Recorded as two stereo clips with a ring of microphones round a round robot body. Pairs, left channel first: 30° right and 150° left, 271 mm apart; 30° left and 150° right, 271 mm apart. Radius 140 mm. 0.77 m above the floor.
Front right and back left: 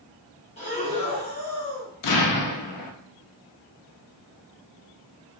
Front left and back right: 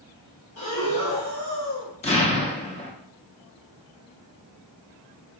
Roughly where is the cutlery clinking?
I don't hear cutlery clinking.